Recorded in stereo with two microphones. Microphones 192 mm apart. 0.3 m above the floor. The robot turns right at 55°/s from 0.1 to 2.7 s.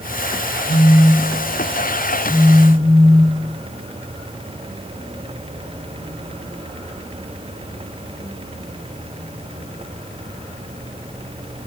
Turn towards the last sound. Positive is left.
turn(degrees=-105)